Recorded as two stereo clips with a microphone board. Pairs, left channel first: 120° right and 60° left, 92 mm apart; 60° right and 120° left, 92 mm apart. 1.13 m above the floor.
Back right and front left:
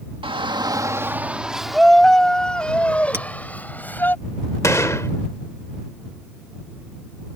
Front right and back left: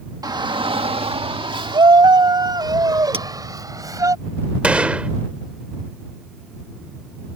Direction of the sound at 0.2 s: 75° left.